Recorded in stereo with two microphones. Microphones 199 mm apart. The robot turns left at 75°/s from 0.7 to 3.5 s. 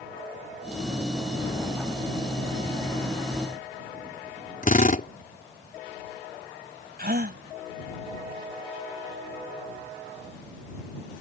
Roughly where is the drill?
Left.